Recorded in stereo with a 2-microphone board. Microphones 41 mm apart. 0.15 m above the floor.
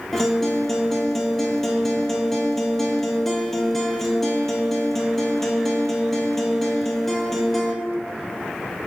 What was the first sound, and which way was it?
A guitar, 5° left (ahead or behind).